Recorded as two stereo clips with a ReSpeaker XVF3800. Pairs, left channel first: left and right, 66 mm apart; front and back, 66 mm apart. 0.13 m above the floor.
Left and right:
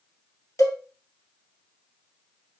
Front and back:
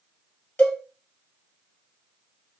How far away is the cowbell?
About 1.7 m.